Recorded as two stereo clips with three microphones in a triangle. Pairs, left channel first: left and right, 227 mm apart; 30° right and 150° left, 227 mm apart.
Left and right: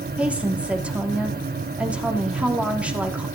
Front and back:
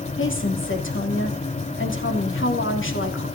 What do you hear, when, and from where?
0.2 s a woman speaking: 5° right, 2.5 m